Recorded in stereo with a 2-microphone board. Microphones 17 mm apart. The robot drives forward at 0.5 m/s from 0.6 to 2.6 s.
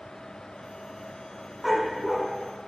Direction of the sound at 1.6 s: 5° right (ahead or behind).